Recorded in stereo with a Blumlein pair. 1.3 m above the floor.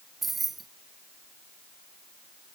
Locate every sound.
0.2 s keys jangling: 15° right